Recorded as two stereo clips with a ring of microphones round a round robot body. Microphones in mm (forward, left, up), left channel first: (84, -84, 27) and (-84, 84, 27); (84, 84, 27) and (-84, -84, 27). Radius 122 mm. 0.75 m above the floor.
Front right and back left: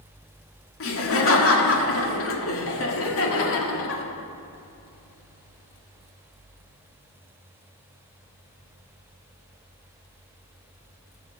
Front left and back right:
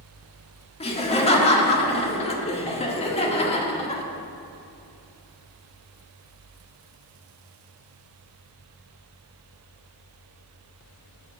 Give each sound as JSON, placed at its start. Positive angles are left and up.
{"t": 0.8, "sound": "laughter", "azimuth_deg": -20, "distance_m": 1.7}